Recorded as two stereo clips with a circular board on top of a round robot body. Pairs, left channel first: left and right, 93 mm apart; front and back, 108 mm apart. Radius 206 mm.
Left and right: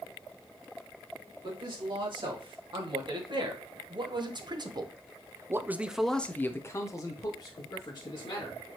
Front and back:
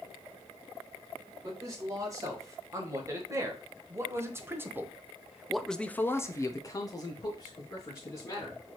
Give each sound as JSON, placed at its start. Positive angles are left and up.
{"t": 1.4, "sound": "a man speaking", "azimuth_deg": -125, "distance_m": 2.5}